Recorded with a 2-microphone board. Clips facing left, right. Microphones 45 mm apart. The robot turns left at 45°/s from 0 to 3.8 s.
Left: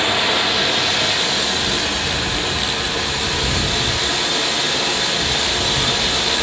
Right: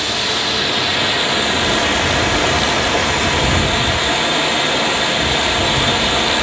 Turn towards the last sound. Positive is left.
turn(degrees=-145)